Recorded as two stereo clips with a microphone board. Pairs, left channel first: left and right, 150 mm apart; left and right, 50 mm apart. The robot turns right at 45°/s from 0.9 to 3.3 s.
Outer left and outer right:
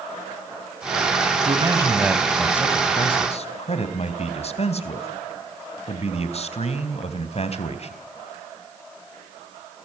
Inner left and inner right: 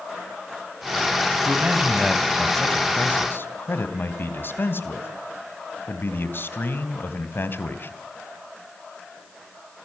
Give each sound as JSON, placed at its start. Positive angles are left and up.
{"t": 1.4, "sound": "a man speaking", "azimuth_deg": -40, "distance_m": 3.5}